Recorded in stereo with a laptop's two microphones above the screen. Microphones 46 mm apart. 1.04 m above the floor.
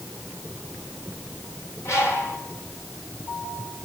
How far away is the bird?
About 4.5 m.